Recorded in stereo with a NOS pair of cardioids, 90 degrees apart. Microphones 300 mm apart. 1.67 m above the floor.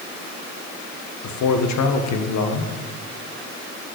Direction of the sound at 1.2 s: 65° left.